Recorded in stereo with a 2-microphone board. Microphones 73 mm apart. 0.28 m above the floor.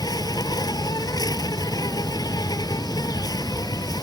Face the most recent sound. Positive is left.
turn(degrees=65)  # may be behind; listen again after turning